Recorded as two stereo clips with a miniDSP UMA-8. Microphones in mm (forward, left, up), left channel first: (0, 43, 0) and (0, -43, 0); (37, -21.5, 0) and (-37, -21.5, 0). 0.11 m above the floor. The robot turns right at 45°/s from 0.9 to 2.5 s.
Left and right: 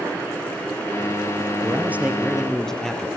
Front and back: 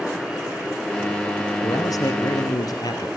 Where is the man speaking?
30° right, 2.5 m; by 3.1 s 5° left, 2.5 m.